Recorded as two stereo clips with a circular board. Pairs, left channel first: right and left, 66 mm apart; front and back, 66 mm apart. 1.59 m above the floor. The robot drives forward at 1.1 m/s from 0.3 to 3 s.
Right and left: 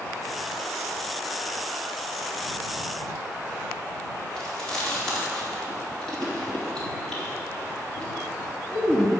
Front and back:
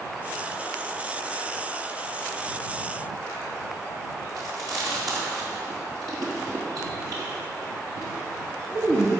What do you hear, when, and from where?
4.4 s chewing: 170° right, 3 m